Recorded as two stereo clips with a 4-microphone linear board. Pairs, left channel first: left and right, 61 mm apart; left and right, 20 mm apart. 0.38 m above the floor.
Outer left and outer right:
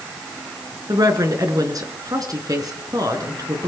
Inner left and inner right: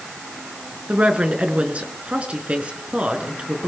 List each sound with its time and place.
0.9 s a woman speaking: 80° right, 4.5 m